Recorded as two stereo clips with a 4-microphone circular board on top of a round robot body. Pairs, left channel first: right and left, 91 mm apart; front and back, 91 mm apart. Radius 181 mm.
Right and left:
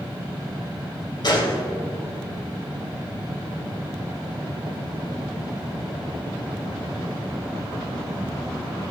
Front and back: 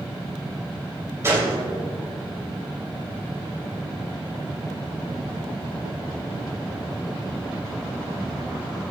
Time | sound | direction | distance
1.2 | a gunshot | 120° right | 3.5 m